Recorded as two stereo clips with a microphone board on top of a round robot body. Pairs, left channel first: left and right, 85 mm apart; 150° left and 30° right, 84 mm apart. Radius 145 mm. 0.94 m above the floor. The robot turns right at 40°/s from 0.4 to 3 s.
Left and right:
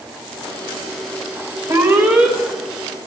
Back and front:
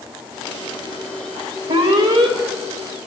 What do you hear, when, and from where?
1.7 s an alarm: 30° right, 3 m; by 2.4 s 5° right, 3 m